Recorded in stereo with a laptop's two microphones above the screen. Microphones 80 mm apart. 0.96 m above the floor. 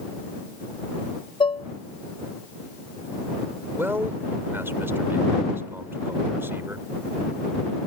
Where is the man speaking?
30° right (ahead or behind).